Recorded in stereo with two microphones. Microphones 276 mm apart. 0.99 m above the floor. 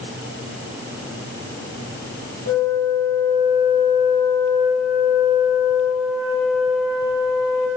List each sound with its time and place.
2.5 s a flute: 80° left, 4 m